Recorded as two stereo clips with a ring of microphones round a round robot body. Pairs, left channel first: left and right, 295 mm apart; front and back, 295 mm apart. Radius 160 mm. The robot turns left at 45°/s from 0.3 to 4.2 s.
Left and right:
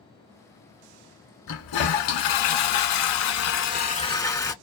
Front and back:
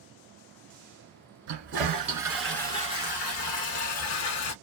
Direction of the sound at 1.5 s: 135° left.